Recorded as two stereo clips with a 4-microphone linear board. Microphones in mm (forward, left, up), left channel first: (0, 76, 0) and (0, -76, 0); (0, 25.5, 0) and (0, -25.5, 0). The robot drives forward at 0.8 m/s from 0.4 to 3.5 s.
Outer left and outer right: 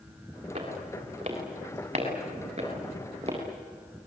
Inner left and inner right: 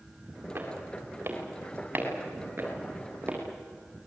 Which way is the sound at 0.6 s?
40° right (ahead or behind).